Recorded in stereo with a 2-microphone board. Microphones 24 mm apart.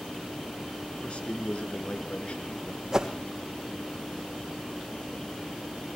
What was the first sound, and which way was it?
A man speaking, 55° left (ahead or behind).